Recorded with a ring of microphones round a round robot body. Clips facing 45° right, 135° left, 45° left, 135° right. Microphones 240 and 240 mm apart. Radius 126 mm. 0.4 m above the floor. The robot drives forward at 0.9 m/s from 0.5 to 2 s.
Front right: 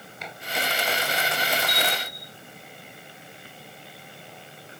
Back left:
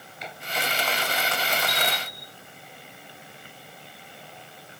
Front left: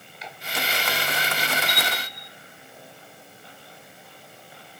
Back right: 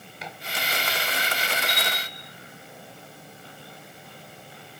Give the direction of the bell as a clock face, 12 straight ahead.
5 o'clock.